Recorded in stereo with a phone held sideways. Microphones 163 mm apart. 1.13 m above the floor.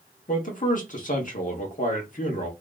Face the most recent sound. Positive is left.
turn(degrees=55)  # may be behind; listen again after turning